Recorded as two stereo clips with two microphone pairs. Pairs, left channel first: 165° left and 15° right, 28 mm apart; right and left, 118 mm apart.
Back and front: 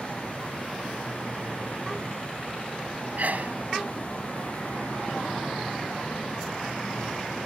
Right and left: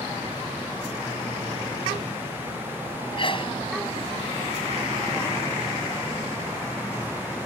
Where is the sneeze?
45° right.